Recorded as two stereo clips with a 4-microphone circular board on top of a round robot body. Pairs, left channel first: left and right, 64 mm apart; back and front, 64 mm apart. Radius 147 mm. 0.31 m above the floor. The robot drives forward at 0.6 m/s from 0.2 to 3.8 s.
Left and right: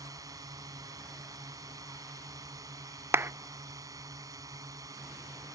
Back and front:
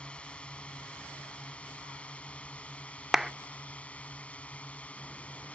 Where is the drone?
110° right.